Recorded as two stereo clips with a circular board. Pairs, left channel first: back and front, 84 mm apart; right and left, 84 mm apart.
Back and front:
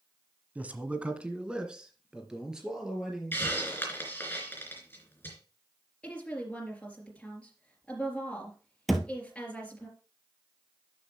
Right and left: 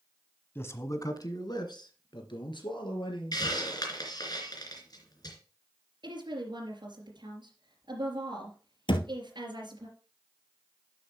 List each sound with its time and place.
0.6 s a man speaking: 55° right, 1.2 m; by 3.4 s 85° right, 4 m
3.3 s a hiss: 120° right, 3 m
6.0 s a woman speaking: 105° left, 3.5 m
8.9 s a thud: 90° right, 1.2 m